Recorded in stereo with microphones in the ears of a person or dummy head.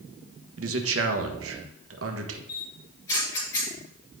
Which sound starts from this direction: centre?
A camera shutter, at 2.5 s.